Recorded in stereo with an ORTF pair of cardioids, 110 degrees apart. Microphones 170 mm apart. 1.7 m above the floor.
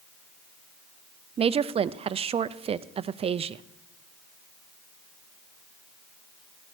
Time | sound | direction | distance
1.4 | a woman speaking | 35° right | 0.6 m